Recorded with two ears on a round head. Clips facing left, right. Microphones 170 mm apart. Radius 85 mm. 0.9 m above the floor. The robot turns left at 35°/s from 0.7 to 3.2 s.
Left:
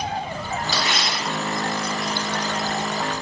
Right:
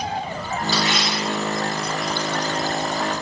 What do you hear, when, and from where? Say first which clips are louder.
0.7 s tearing paper: right 5 dB; 75° left (ahead or behind), 1.9 m; by 2.5 s 30° left (ahead or behind), 1.9 m